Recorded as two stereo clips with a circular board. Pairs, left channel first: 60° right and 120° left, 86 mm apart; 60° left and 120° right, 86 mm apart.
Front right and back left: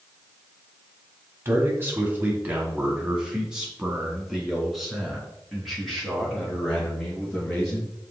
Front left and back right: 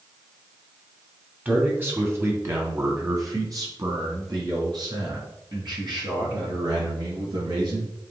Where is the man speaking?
175° left, 1.9 m; by 7.9 s 145° right, 5 m.